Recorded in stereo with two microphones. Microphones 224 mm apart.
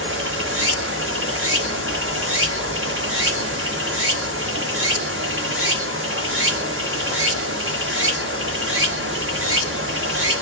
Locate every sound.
0.0 s running water: 65° right (ahead or behind), 1.0 m